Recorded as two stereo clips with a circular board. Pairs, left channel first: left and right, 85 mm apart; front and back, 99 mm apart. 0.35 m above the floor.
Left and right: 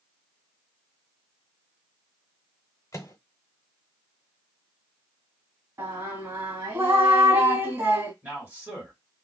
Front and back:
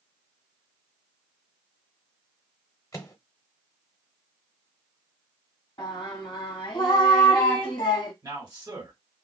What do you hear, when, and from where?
2.9 s a microwave: 50° left, 0.9 m
5.8 s singing: 35° right, 1.2 m
8.2 s a man speaking: 150° right, 1.8 m